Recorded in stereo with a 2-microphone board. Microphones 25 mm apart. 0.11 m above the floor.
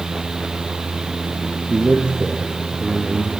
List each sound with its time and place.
1.7 s a man speaking: 65° right (ahead or behind), 3 m